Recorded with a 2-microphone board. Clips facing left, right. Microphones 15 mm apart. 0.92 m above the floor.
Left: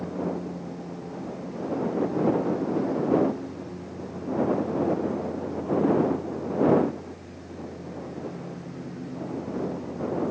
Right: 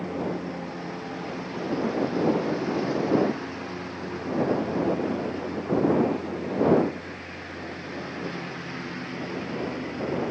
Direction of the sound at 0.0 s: 50° right (ahead or behind).